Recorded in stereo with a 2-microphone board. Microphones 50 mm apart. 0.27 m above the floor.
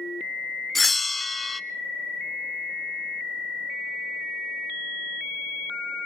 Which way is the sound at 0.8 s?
Centre (ahead or behind).